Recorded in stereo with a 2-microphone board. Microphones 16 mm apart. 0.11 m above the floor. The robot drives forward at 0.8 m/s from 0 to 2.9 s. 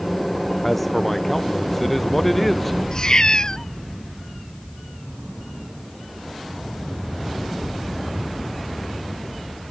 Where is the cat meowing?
45° left (ahead or behind).